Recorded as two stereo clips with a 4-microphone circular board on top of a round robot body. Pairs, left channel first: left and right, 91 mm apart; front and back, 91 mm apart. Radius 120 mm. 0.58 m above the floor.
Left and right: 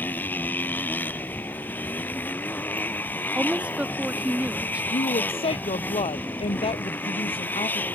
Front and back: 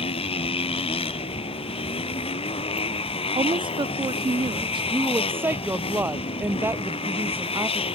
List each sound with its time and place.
0.0 s a motorcycle: 20° left
3.4 s a woman speaking: 165° right
4.9 s a woman speaking: 110° left